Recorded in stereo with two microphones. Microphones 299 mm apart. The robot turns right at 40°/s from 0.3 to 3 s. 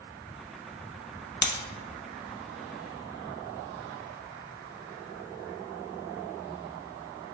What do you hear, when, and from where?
1.4 s breaking glass: 50° left (ahead or behind), 0.9 m